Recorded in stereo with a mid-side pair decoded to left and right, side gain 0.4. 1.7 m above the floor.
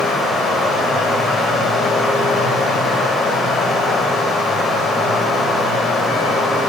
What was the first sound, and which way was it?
Running water, 70° left.